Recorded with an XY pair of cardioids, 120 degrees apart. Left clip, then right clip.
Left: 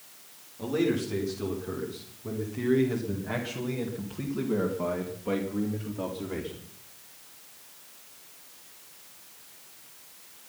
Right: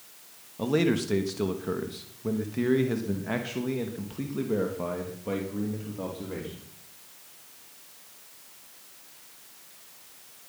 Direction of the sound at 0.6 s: 60° right.